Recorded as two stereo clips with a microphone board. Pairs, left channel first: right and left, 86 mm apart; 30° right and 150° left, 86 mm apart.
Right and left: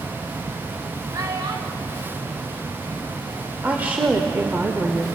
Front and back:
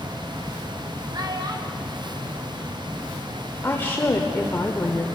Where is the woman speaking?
25° left, 1.0 m.